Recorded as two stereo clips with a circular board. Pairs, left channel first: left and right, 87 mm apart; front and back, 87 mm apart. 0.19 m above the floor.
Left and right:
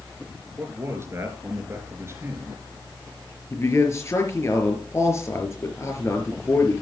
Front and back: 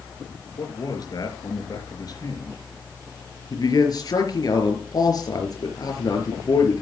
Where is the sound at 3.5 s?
35° left, 4.5 m.